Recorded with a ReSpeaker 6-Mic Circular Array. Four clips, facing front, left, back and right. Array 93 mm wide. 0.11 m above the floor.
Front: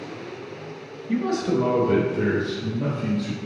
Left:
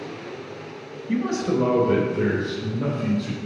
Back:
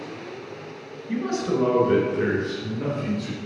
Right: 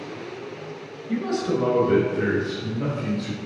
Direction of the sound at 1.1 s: 95° left.